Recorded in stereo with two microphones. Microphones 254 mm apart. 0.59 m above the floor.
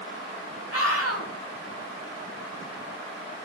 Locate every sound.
0.7 s a scream: 60° left (ahead or behind), 2.5 m